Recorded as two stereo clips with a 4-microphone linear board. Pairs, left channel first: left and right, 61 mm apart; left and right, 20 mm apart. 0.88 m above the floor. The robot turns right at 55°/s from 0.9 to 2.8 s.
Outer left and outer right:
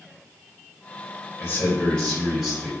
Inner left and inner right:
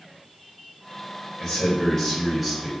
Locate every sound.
1.4 s a man speaking: 130° left, 2.0 m; by 2.7 s 155° right, 2.0 m